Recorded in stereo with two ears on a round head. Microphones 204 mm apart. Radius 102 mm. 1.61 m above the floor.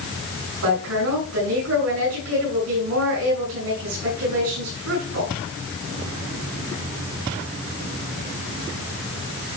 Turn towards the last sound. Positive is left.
turn(degrees=-75)  # may be behind; listen again after turning